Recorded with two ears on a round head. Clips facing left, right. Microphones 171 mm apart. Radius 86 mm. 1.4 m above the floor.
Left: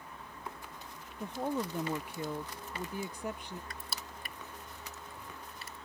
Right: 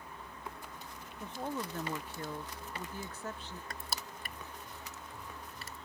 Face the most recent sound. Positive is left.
turn(degrees=-40)  # may be behind; listen again after turning